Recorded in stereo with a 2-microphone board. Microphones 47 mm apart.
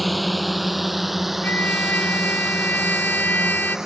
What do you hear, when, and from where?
0.0 s a drone: centre (ahead or behind); by 3.9 s 10° right (ahead or behind)
1.4 s a trumpet: 40° left (ahead or behind)